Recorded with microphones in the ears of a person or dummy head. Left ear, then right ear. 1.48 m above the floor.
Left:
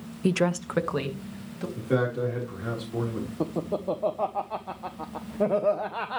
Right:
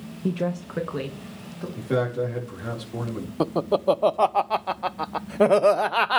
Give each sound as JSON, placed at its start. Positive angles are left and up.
{"t": 0.2, "sound": "a woman speaking", "side_deg": 65, "distance_m": 0.9}
{"t": 1.8, "sound": "a man speaking", "side_deg": -5, "distance_m": 4.0}
{"t": 3.4, "sound": "laughter", "side_deg": -75, "distance_m": 0.7}